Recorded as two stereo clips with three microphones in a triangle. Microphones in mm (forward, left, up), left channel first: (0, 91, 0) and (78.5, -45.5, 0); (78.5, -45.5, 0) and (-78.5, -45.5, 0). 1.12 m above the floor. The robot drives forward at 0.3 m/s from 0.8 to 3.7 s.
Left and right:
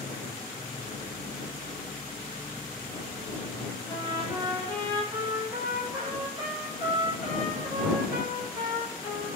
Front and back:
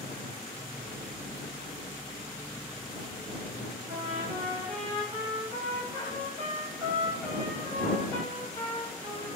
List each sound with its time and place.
3.9 s a trumpet: 130° right, 3 m